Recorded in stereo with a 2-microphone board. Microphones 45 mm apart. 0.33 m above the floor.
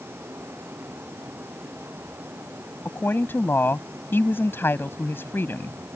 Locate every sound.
2.9 s a woman speaking: 55° left (ahead or behind)